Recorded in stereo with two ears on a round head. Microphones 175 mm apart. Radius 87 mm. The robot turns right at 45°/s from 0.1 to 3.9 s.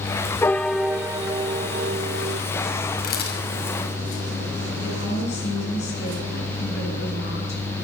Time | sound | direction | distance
0.4 | a piano | 165° left | 0.5 m
3.0 | a camera shutter | 45° left (ahead or behind) | 5.5 m
4.8 | a woman speaking | 60° left (ahead or behind) | 10 m